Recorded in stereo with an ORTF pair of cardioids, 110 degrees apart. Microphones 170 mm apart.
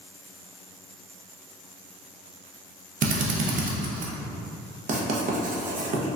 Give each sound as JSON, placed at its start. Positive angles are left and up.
{"t": 3.0, "sound": "a drill", "azimuth_deg": -45, "distance_m": 0.6}
{"t": 4.9, "sound": "writing", "azimuth_deg": -45, "distance_m": 0.7}